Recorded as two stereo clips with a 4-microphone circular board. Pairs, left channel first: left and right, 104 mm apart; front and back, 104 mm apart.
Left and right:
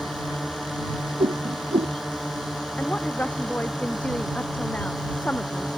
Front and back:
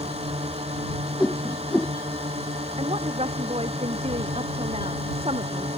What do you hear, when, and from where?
0.0 s a drone: straight behind
1.2 s a whoosh: 80° right
2.8 s a woman speaking: 165° left